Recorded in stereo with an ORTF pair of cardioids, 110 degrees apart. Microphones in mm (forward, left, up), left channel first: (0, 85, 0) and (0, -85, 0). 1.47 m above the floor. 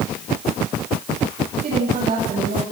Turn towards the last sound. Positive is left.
turn(degrees=-45)